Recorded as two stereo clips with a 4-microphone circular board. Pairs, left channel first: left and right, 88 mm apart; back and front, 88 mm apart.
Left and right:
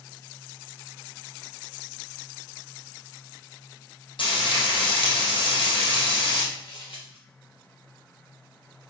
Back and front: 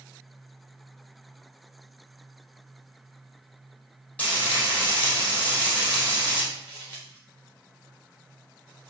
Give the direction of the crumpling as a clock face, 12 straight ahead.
8 o'clock.